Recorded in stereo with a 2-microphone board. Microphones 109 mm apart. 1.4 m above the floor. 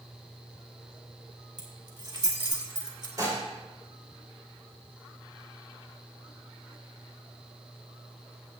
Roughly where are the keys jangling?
Right.